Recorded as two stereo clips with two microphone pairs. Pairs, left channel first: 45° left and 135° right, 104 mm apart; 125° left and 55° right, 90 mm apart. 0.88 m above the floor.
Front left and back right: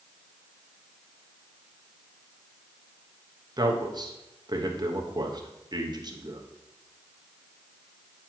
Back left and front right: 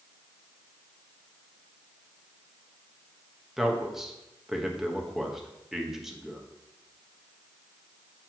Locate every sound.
3.6 s a man speaking: 140° right, 1.1 m